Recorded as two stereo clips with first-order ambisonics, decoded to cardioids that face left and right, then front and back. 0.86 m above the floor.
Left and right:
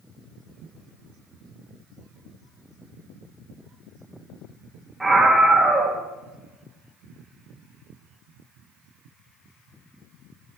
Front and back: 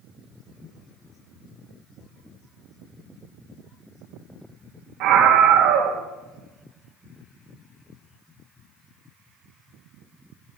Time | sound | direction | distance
5.0 | a scream | straight behind | 1.5 m